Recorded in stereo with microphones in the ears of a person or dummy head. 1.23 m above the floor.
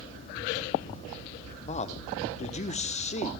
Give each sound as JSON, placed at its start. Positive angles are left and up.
{"t": 1.7, "sound": "a man speaking", "side_deg": 30, "distance_m": 0.9}